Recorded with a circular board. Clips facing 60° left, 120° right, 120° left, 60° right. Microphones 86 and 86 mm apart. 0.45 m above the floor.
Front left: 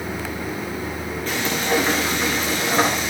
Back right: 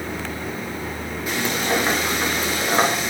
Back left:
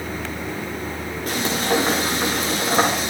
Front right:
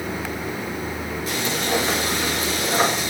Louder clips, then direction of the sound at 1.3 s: Even, back left 3 dB; 160° left.